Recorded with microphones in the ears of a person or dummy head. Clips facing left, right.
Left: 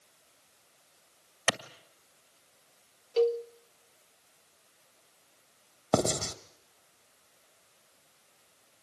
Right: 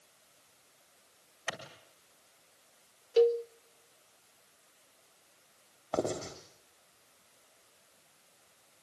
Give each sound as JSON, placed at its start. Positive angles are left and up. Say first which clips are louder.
{"t": 1.5, "sound": "a clap", "louder": "left 9 dB", "side_deg": 70, "distance_m": 1.9}
{"t": 3.2, "sound": "a cowbell", "louder": "right 2 dB", "side_deg": -20, "distance_m": 0.7}
{"t": 5.9, "sound": "writing", "louder": "left 5 dB", "side_deg": 60, "distance_m": 2.5}